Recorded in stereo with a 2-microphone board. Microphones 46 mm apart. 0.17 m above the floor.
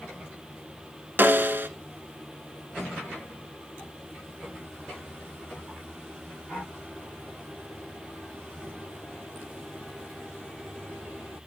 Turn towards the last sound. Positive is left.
turn(degrees=-45)  # may be behind; listen again after turning